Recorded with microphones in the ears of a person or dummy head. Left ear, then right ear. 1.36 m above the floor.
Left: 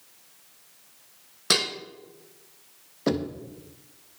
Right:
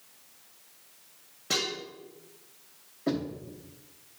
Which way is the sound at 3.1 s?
75° left (ahead or behind).